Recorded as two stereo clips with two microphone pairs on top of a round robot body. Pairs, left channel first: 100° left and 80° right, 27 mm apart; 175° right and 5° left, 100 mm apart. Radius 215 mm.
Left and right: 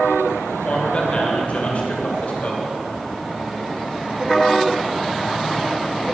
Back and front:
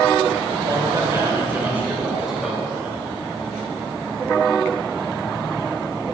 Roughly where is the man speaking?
Ahead left.